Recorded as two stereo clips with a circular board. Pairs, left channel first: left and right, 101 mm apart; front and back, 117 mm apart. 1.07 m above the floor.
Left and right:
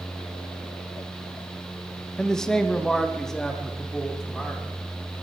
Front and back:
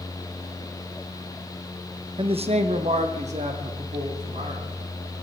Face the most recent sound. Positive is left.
turn(degrees=175)